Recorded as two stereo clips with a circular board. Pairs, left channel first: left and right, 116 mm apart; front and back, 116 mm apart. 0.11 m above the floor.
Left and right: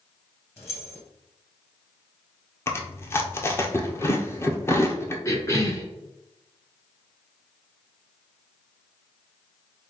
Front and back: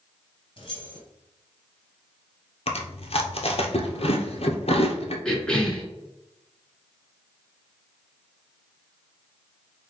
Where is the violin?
No violin in this recording.